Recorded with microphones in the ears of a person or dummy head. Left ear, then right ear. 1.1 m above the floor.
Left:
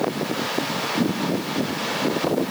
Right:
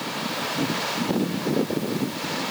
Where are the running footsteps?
No running footsteps in this recording.